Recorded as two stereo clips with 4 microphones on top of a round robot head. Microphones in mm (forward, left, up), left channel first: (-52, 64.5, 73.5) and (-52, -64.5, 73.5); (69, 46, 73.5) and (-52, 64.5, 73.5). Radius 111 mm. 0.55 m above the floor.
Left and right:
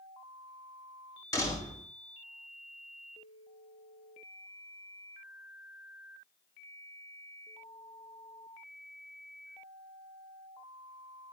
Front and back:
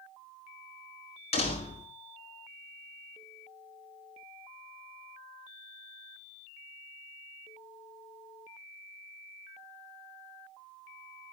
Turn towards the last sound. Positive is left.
turn(degrees=25)